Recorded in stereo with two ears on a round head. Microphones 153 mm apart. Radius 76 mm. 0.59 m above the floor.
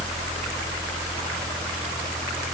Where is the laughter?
No laughter in this recording.